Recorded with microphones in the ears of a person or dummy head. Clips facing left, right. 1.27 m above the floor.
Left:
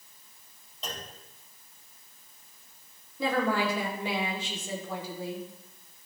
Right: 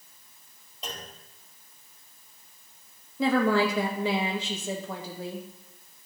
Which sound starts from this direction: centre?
A clunk, at 0.8 s.